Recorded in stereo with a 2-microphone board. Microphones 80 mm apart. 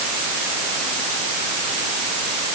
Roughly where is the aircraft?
No aircraft in this recording.